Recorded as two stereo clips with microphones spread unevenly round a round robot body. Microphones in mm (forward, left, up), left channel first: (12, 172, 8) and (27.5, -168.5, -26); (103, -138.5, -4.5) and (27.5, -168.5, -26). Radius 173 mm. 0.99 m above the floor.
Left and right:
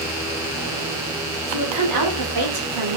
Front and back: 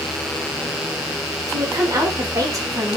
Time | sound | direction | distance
1.5 | a woman speaking | 120° right | 4 m